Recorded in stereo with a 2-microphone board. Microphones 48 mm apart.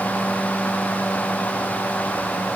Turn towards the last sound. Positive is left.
No sound to turn to.